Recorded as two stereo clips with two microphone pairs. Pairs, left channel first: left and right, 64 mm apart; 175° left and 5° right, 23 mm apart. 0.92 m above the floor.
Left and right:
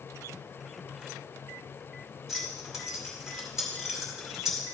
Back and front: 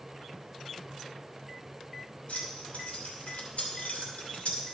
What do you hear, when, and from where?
2.3 s keys jangling: 175° right, 2.5 m